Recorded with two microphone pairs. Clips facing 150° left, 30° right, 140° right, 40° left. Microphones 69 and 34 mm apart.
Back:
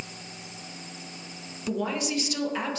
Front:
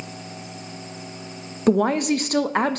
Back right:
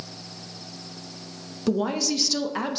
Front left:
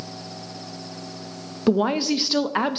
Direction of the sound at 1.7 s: 15° right.